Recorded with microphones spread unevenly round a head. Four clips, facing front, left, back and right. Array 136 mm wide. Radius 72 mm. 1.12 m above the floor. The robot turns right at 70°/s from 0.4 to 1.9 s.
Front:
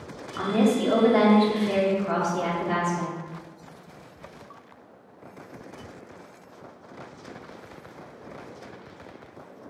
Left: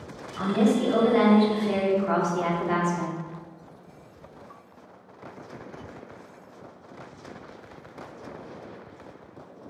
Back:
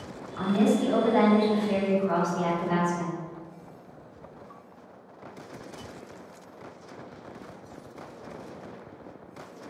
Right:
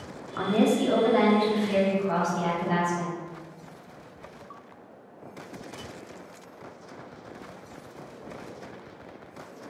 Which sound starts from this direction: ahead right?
A woman speaking, at 0.4 s.